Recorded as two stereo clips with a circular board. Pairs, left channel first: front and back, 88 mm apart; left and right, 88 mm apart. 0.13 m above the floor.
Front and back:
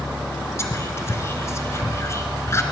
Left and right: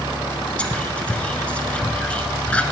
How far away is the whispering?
About 1.6 m.